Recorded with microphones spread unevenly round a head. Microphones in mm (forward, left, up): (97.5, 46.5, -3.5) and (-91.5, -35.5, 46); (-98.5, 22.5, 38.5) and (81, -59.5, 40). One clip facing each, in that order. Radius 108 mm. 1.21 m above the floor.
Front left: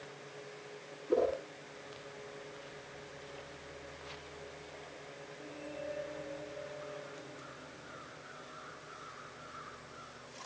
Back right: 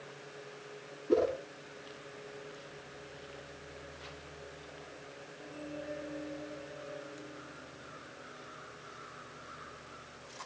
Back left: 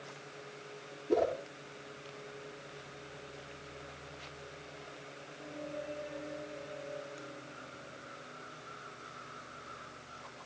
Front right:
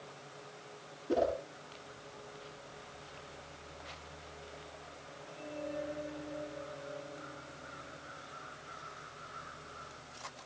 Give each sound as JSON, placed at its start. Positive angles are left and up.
{"t": 1.1, "sound": "a whoosh", "azimuth_deg": -105, "distance_m": 8.0}